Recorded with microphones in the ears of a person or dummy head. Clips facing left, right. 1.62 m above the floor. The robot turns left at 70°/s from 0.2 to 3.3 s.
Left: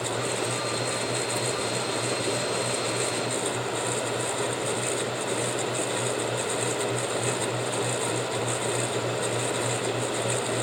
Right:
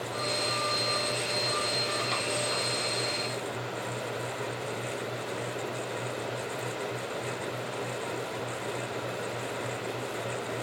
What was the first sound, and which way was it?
Only background noise.